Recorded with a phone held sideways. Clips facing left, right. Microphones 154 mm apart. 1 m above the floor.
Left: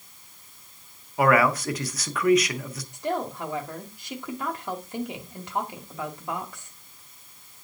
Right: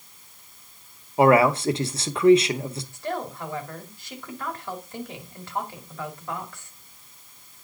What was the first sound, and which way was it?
A man speaking, 30° right (ahead or behind).